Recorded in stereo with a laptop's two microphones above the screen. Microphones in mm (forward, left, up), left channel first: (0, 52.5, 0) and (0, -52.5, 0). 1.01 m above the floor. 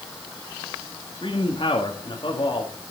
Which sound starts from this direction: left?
A man speaking, at 1.2 s.